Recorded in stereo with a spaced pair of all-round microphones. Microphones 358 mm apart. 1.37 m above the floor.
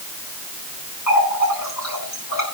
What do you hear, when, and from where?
1.1 s a running tap: 50° left (ahead or behind), 9.5 m